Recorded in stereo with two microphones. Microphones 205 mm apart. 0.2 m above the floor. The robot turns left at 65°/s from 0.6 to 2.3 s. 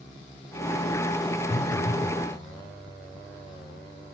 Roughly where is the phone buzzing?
Left.